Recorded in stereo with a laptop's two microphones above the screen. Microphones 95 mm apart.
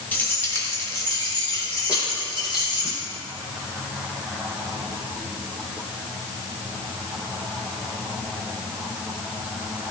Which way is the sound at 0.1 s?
20° left (ahead or behind).